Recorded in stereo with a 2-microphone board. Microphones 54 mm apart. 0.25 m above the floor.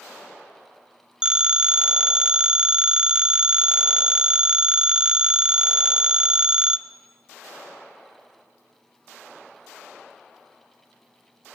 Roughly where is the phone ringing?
Centre.